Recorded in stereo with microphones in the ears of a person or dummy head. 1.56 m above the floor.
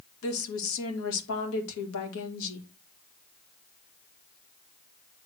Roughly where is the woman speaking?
Left.